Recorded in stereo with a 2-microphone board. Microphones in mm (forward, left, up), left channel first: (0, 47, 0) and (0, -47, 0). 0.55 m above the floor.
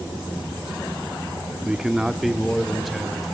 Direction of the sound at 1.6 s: 10° right (ahead or behind).